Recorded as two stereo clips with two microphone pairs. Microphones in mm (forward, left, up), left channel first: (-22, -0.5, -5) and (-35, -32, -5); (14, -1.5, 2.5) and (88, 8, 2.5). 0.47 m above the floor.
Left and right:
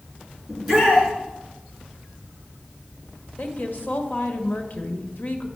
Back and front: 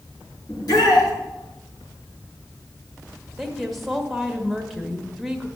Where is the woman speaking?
90° left, 1.3 m.